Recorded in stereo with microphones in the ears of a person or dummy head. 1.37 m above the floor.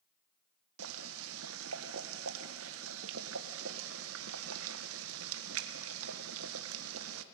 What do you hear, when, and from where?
0.8 s boiling: 70° right (ahead or behind), 1.2 m